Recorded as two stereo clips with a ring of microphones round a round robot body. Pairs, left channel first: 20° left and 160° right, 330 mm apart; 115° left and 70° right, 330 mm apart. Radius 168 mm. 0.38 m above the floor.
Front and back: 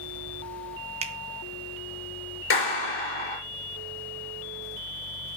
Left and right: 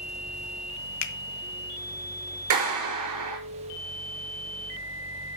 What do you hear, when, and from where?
1.0 s a finger snap: 135° left, 0.9 m
2.5 s a clap: 30° right, 4.5 m